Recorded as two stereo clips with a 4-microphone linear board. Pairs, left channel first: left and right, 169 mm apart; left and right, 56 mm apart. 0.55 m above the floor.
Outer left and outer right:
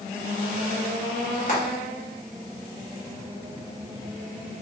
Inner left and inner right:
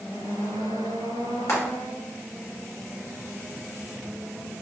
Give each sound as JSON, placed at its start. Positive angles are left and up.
{"t": 1.5, "sound": "frying", "side_deg": 50, "distance_m": 1.2}